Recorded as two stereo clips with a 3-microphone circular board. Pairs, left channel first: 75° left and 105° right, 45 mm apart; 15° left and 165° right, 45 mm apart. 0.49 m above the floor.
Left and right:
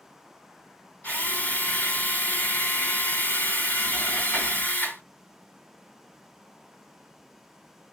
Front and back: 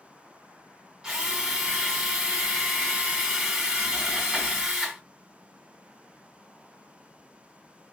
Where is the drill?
120° left, 2.0 m.